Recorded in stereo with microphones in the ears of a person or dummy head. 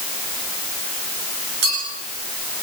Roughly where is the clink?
Right.